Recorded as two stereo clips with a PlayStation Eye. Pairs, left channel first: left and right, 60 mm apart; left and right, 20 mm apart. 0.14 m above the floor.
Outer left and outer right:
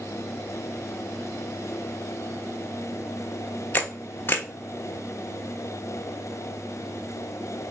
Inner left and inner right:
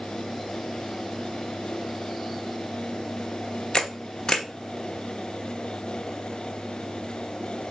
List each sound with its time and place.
3.7 s a camera shutter: 35° left (ahead or behind), 0.6 m